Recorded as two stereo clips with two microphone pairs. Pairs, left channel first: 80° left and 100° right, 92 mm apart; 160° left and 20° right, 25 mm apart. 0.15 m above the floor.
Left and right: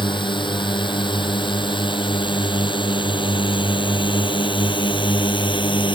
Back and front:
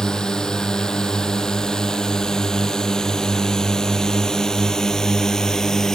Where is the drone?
105° left; by 5.9 s 100° left.